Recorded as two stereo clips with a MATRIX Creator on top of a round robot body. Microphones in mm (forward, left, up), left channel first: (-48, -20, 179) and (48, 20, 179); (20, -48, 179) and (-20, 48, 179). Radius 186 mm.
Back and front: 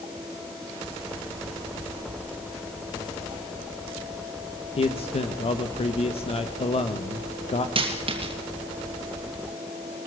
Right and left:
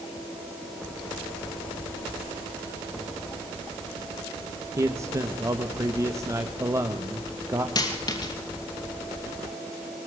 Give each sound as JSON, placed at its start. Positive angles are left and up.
{"t": 4.8, "sound": "a man speaking", "azimuth_deg": 175, "distance_m": 1.5}
{"t": 7.8, "sound": "a dropped coin", "azimuth_deg": -15, "distance_m": 2.5}